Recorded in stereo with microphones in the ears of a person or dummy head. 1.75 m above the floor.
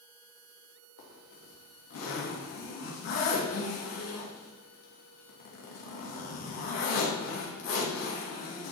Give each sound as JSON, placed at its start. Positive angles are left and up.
{"t": 1.0, "sound": "a zipper", "side_deg": 70, "distance_m": 1.7}